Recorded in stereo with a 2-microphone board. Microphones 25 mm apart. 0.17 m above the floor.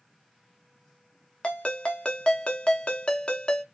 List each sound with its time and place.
1.4 s a ringtone: 45° left (ahead or behind), 0.6 m